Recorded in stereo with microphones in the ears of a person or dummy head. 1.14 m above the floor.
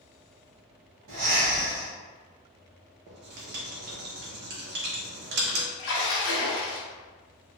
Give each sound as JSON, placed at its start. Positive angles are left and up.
{"t": 1.1, "sound": "breathing", "side_deg": -55, "distance_m": 1.2}
{"t": 3.1, "sound": "writing", "side_deg": -45, "distance_m": 0.7}
{"t": 5.8, "sound": "a splash", "side_deg": 50, "distance_m": 1.0}